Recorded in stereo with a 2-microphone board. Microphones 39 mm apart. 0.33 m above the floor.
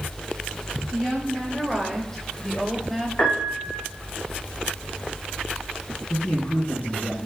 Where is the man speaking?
45° left (ahead or behind), 4 m.